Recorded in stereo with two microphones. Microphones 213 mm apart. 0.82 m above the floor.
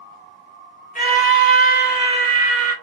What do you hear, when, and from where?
0.9 s a scream: 40° left (ahead or behind), 1.0 m